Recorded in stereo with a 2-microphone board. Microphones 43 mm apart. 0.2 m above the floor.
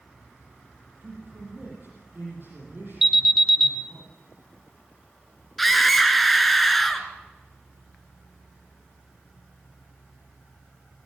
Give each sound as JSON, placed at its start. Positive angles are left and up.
{"t": 1.0, "sound": "a man speaking", "side_deg": -55, "distance_m": 7.5}
{"t": 3.0, "sound": "an alarm", "side_deg": -5, "distance_m": 1.8}
{"t": 5.6, "sound": "a scream", "side_deg": 5, "distance_m": 2.5}